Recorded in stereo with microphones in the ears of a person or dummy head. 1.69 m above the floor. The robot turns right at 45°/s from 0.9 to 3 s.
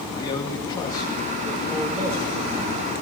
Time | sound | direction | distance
0.1 | a man speaking | 160° left | 3 m